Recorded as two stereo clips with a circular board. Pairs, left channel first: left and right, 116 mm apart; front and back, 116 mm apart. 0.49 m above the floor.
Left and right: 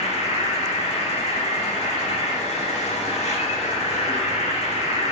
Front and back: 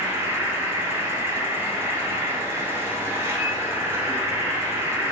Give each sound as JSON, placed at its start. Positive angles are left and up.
{"t": 0.0, "sound": "an insect", "azimuth_deg": 110, "distance_m": 0.8}